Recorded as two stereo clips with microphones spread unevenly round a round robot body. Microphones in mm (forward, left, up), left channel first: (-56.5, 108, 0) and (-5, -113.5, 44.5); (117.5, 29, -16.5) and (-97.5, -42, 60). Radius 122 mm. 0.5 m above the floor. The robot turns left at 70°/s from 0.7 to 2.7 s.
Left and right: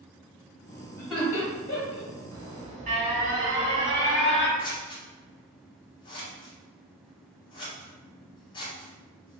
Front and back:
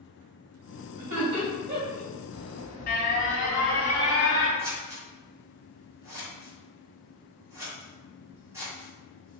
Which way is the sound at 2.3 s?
10° left.